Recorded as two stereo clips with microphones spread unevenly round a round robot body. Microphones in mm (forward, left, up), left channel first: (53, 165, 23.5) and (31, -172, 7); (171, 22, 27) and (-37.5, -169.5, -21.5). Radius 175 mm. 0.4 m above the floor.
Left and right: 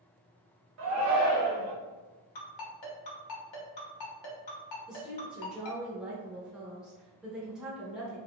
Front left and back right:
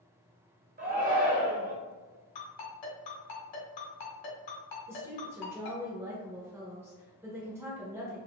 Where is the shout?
100° right, 1.6 m.